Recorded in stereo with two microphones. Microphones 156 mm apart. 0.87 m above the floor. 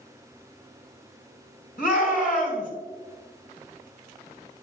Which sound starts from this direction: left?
A shout, at 1.8 s.